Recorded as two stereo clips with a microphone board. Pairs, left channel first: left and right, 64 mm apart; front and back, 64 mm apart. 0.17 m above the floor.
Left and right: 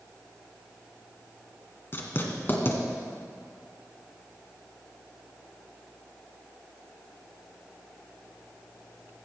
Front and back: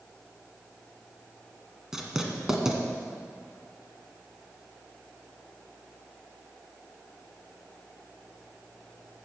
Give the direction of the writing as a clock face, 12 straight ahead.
8 o'clock.